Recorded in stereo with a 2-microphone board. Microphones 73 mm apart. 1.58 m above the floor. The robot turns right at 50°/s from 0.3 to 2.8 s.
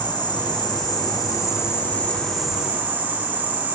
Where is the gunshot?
No gunshot in this recording.